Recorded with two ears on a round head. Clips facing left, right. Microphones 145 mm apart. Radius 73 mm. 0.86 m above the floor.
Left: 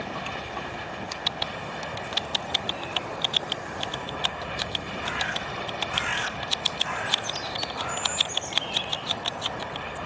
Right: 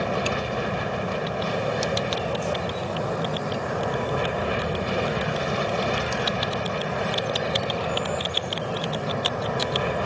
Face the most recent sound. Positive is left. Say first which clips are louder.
# right 9 dB
turn(degrees=-60)  # may be behind; listen again after turning